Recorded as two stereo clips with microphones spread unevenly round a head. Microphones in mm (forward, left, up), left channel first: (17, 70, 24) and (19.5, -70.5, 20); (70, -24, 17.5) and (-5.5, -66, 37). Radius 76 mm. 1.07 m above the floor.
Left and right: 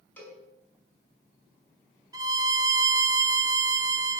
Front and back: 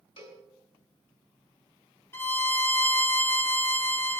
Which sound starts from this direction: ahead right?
A violin, at 2.1 s.